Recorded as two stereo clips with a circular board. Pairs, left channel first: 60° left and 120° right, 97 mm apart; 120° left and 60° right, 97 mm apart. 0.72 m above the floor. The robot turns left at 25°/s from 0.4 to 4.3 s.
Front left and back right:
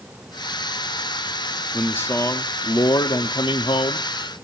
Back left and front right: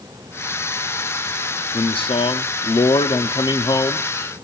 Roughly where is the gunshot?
I don't hear a gunshot.